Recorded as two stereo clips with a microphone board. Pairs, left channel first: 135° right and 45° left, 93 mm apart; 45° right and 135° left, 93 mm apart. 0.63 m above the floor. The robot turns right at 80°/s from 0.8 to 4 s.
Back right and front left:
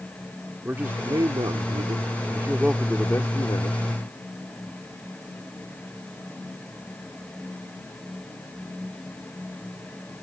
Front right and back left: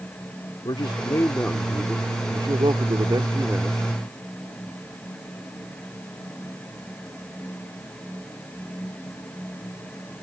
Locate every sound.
0.7 s a man speaking: 25° right; by 3.8 s 145° right